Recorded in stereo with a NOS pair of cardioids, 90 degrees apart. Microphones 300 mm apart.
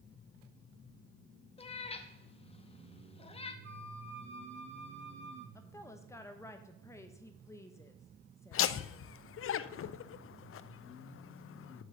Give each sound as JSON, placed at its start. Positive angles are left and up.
{"t": 1.6, "sound": "a cat meowing", "azimuth_deg": 20, "distance_m": 0.8}
{"t": 3.6, "sound": "a flute", "azimuth_deg": -40, "distance_m": 1.3}
{"t": 5.5, "sound": "a woman speaking", "azimuth_deg": 10, "distance_m": 0.7}
{"t": 8.5, "sound": "laughter", "azimuth_deg": 45, "distance_m": 0.5}